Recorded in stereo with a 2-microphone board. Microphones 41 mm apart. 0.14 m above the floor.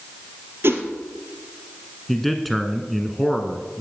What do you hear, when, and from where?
0.6 s a whoosh: 70° right (ahead or behind), 2.5 m
2.1 s a man speaking: centre (ahead or behind), 1.4 m